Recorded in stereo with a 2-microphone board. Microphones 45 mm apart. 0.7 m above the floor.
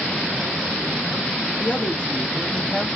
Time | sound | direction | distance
1.6 | a woman speaking | 45° left (ahead or behind) | 1.1 m